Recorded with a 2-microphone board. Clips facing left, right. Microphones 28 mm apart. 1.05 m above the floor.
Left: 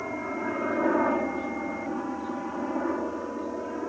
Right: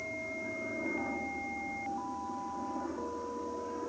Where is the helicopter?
60° left (ahead or behind); by 3.9 s 35° left (ahead or behind).